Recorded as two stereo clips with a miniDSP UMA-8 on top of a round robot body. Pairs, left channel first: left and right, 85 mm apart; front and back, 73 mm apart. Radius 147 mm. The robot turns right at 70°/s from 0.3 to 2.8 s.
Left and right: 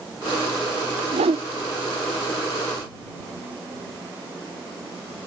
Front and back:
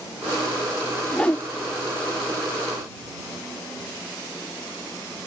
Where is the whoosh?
85° right; by 1.4 s 60° right.